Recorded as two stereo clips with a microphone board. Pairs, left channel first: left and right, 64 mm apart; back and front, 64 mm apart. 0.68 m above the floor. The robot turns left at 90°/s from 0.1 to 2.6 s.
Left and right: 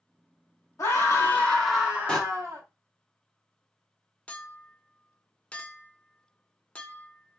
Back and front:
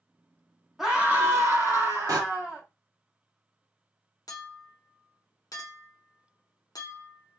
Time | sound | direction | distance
0.8 | a scream | 80° left | 1.4 m
2.1 | a door slam | 10° left | 1.2 m
4.3 | a clink | 160° left | 0.7 m